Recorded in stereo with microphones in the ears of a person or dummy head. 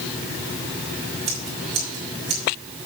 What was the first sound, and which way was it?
Scissors, 45° right (ahead or behind).